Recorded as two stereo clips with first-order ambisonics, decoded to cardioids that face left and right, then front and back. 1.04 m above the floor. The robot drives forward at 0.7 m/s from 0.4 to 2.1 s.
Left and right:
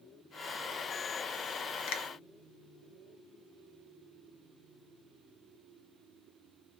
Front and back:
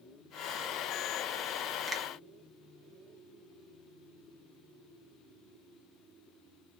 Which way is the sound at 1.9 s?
100° left.